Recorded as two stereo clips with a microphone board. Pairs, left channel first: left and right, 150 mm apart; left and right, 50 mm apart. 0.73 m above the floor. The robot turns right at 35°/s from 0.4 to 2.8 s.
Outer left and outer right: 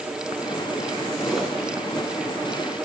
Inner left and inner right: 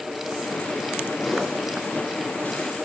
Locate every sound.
1.2 s a whoosh: 5° left (ahead or behind), 3 m; by 1.6 s 5° right (ahead or behind), 3 m